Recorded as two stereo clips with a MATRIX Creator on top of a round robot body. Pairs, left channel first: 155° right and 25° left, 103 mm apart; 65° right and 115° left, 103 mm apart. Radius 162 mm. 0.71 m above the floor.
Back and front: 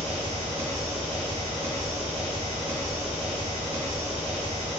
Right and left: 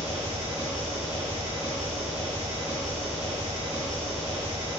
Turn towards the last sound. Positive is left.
turn(degrees=30)